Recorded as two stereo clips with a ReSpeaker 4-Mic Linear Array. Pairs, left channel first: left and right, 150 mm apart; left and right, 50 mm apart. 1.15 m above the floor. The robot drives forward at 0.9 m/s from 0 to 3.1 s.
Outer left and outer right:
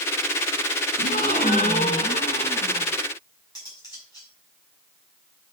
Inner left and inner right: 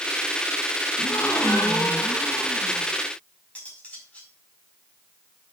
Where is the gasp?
70° left (ahead or behind), 2.5 m; by 2.9 s 45° left (ahead or behind), 3.5 m.